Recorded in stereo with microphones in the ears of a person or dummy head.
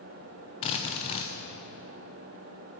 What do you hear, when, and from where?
0.6 s a drill: 35° left (ahead or behind), 0.7 m